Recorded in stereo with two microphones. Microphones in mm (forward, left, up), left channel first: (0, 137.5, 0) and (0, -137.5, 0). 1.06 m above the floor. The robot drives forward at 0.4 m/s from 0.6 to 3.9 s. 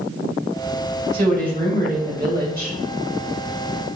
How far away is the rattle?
No rattle in this recording.